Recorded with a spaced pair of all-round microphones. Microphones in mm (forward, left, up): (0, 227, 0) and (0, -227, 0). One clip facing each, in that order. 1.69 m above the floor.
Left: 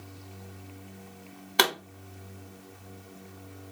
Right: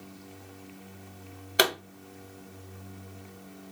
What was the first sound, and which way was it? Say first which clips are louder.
A pop: right 1 dB; 15° left (ahead or behind).